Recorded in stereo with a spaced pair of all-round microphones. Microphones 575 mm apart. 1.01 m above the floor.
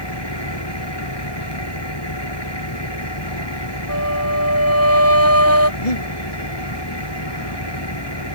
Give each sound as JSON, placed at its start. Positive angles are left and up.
{"t": 0.0, "sound": "an engine running", "side_deg": 40}
{"t": 3.9, "sound": "a flute", "side_deg": -25}
{"t": 5.8, "sound": "breathing", "side_deg": 80}